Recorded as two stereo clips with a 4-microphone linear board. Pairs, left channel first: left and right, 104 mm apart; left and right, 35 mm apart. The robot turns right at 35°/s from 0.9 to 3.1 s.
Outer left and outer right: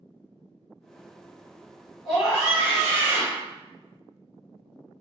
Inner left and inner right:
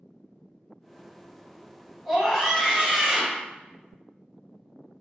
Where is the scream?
175° right, 1.8 m; by 3.4 s 135° right, 1.8 m.